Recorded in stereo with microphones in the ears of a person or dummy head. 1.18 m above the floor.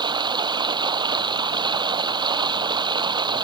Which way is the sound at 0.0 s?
20° right (ahead or behind).